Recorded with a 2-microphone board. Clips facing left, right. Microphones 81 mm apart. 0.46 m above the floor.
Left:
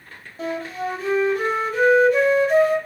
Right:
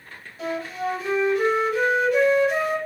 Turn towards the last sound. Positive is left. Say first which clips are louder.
# left 1 dB
turn(degrees=40)  # may be behind; listen again after turning